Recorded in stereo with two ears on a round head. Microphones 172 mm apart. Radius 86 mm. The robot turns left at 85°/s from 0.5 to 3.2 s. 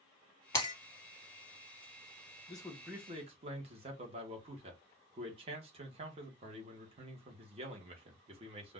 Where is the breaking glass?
20° left (ahead or behind), 2 m; by 0.7 s 30° left (ahead or behind), 2 m.